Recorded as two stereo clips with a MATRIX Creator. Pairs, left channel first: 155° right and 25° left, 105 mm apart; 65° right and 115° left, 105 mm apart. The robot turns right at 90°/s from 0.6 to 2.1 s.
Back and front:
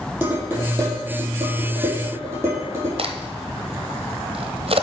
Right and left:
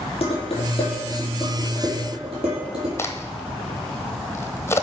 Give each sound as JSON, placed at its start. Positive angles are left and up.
{"t": 0.2, "sound": "dishes clattering", "azimuth_deg": -45, "distance_m": 4.5}
{"t": 3.0, "sound": "a crack", "azimuth_deg": 0, "distance_m": 1.0}